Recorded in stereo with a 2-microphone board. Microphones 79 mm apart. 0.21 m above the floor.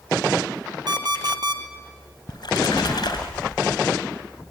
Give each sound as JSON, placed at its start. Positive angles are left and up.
{"t": 0.9, "sound": "an alarm clock", "side_deg": -60, "distance_m": 2.0}
{"t": 2.3, "sound": "a splash", "side_deg": 55, "distance_m": 3.5}